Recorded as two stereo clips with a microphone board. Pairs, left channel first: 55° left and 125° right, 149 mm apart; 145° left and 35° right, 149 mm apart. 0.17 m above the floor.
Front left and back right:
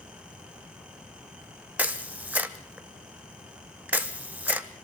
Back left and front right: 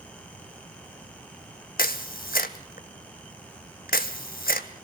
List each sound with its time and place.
1.8 s a camera shutter: 155° left, 1.1 m